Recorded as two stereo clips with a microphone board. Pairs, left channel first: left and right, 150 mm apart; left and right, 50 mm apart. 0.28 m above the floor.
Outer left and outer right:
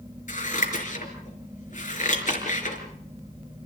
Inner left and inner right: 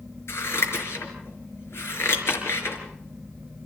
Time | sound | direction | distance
0.3 | scissors | 60° left (ahead or behind) | 4.5 m